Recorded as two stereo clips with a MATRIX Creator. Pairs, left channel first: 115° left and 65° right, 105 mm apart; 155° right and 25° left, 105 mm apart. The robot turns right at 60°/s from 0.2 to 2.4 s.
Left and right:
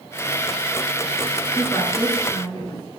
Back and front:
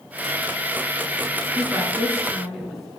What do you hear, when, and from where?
1.6 s a woman speaking: 55° left, 1.7 m; by 3.0 s 105° left, 1.7 m